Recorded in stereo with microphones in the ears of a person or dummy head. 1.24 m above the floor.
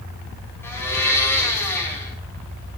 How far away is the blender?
About 8.5 m.